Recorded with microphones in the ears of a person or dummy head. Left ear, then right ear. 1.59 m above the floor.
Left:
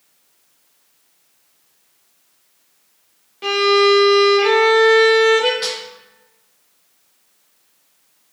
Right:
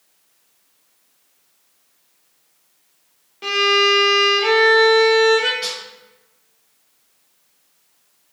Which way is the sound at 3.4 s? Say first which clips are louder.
Left 2 dB; centre (ahead or behind).